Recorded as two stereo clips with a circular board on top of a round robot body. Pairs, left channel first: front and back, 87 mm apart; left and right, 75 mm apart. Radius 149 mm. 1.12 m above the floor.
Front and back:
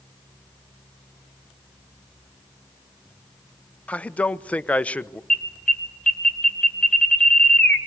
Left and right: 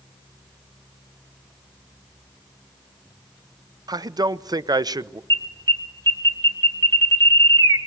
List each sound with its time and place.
3.9 s a man speaking: 75° right, 1.0 m
5.3 s an alarm: 75° right, 3 m